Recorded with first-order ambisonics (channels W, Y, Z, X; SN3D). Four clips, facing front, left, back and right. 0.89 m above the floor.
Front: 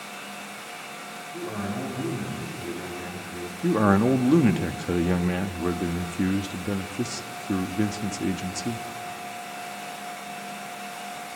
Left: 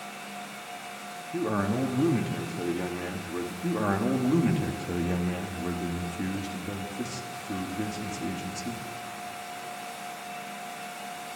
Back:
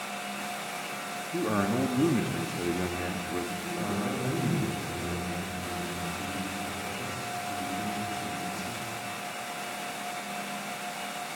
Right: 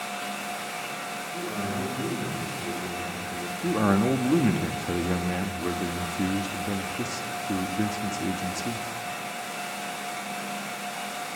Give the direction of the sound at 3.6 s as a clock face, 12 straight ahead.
1 o'clock.